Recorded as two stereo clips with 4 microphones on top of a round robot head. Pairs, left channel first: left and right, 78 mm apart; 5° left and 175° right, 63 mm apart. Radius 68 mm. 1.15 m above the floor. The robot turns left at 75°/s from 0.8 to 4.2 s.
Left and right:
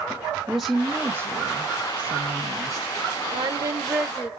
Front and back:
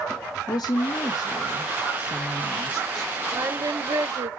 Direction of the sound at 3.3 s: 115° right.